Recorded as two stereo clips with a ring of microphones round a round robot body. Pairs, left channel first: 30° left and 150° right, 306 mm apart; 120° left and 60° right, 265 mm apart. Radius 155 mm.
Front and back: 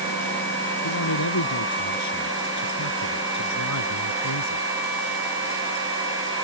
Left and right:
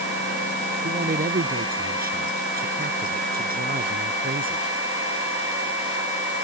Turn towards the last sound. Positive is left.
turn(degrees=-5)